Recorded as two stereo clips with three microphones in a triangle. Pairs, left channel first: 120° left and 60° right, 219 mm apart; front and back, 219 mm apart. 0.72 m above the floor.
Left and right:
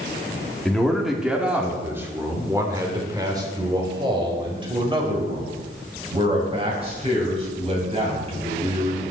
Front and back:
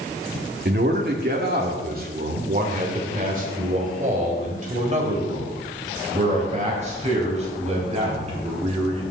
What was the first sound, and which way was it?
A man speaking, 155° right.